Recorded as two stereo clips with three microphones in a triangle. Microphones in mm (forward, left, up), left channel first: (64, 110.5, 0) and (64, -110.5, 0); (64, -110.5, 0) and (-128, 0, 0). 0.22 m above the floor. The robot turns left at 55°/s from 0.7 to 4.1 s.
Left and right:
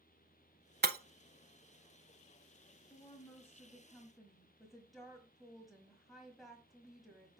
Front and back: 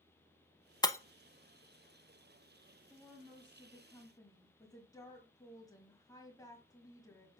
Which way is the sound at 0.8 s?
95° right.